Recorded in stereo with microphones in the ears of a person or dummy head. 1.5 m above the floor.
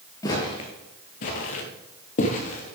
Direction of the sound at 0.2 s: 15° left (ahead or behind).